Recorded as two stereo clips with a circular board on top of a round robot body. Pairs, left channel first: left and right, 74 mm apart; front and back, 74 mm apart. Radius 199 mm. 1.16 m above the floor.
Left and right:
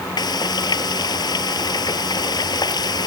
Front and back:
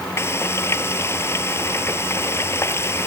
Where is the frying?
55° left.